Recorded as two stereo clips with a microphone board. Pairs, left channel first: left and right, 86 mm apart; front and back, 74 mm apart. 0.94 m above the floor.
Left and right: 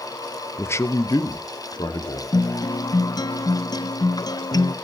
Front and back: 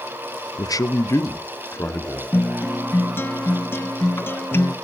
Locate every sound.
0.6 s a man speaking: 25° left, 0.6 m; by 2.2 s 60° left, 1.9 m
2.3 s a guitar: 55° left, 0.5 m